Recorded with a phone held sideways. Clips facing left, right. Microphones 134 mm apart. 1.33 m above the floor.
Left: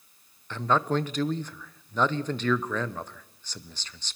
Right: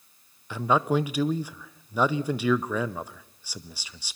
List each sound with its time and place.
0.5 s a man speaking: 10° right (ahead or behind), 0.7 m